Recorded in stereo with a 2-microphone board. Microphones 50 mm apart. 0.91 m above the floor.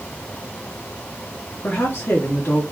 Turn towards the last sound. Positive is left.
turn(degrees=70)  # may be behind; listen again after turning